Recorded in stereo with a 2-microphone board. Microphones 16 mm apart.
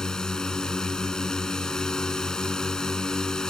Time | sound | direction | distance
0.0 | a drone | 45° left (ahead or behind) | ?